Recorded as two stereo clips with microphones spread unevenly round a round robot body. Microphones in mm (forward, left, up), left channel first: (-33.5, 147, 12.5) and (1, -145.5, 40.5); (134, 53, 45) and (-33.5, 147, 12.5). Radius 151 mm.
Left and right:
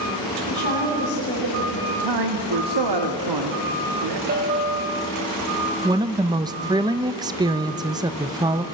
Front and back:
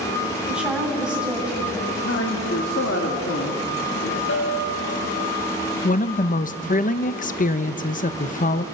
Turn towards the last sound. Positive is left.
turn(degrees=-10)